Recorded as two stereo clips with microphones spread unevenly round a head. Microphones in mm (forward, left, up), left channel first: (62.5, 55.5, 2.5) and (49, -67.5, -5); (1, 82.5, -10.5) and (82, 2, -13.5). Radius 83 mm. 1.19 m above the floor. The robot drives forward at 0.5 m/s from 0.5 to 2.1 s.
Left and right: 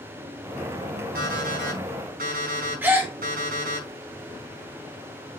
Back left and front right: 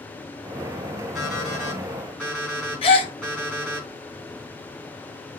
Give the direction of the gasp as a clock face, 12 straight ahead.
6 o'clock.